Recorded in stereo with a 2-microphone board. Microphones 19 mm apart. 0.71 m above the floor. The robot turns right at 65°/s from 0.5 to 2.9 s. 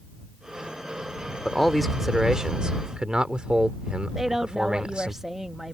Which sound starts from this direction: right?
A woman speaking, at 4.2 s.